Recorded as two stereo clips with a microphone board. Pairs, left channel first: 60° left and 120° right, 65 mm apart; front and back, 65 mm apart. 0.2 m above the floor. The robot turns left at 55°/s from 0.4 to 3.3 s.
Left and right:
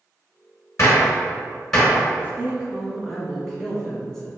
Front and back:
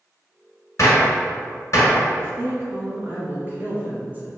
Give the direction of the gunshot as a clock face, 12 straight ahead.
11 o'clock.